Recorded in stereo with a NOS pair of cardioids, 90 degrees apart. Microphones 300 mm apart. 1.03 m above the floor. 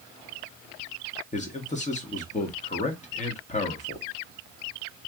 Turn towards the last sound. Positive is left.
turn(degrees=25)